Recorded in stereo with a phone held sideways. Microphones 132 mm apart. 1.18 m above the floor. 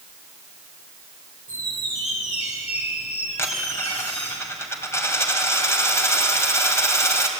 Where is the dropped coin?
20° left (ahead or behind), 2.5 m.